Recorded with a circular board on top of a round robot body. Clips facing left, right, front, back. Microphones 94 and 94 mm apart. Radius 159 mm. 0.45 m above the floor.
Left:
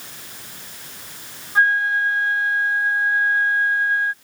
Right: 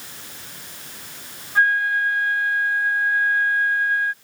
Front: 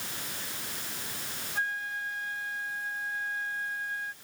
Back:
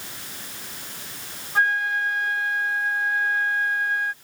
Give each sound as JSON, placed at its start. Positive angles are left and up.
{"t": 1.6, "sound": "a flute", "azimuth_deg": 155}